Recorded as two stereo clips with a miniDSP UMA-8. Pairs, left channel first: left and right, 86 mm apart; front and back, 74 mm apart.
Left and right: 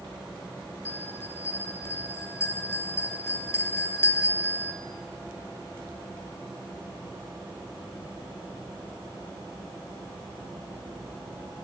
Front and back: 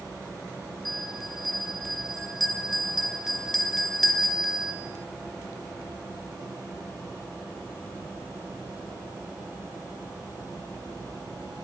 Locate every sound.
0.8 s a bell: 90° left, 1.1 m